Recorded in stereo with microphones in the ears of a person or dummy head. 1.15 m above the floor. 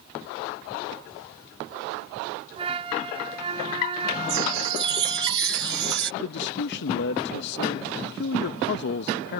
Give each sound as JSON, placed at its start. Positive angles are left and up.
{"t": 2.6, "sound": "a flute", "side_deg": -30}
{"t": 4.3, "sound": "a chime", "side_deg": -65}
{"t": 6.2, "sound": "a man speaking", "side_deg": 60}